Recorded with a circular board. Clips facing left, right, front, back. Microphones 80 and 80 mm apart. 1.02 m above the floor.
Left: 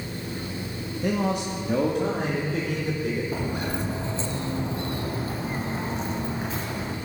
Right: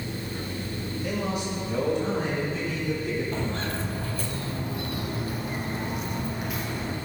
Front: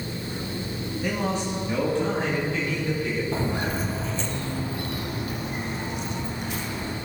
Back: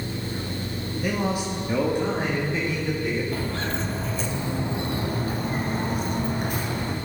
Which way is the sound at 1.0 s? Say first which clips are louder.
Left 5 dB, back 1 dB; 95° left.